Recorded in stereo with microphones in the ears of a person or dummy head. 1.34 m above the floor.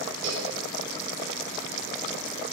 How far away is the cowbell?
About 4 m.